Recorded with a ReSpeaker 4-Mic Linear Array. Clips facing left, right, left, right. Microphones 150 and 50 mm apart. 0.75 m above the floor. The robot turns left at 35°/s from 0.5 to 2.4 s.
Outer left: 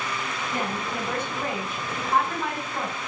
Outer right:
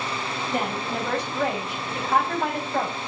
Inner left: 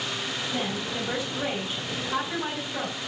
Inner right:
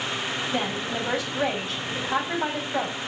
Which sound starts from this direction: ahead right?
A woman speaking, at 0.5 s.